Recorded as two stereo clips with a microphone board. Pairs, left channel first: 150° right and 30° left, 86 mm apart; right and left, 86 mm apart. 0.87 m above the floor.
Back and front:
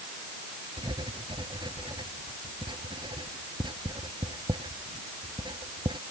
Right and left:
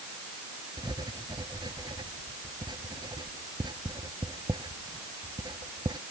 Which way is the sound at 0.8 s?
55° left.